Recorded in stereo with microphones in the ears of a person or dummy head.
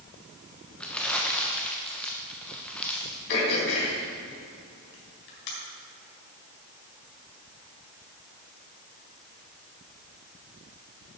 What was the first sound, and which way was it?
Crumpling, 5° left (ahead or behind).